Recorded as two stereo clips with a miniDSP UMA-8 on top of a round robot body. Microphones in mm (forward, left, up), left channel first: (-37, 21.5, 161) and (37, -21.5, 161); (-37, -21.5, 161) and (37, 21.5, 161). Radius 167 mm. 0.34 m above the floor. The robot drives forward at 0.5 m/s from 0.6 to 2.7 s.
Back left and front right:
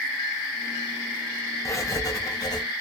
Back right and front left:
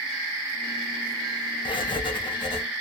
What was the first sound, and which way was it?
Writing, 160° right.